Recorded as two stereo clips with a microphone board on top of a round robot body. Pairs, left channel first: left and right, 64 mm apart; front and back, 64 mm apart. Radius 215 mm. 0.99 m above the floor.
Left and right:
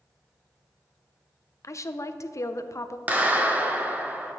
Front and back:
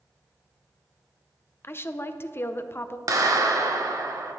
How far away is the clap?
About 1.0 m.